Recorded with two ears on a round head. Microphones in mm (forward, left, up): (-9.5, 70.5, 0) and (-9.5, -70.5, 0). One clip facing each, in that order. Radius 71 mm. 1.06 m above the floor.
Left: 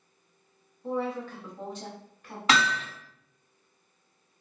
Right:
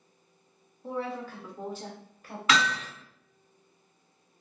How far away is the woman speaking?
About 0.7 m.